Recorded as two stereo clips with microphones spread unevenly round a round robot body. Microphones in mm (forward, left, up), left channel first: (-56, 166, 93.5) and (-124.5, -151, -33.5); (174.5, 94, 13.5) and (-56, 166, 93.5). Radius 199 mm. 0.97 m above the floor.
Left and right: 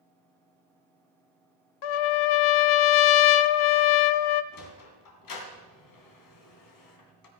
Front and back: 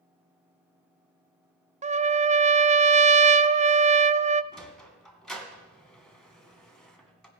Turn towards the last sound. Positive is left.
turn(degrees=75)